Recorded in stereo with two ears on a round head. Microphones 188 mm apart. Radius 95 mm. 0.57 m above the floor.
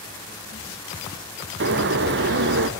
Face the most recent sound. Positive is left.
turn(degrees=-55)  # may be behind; listen again after turning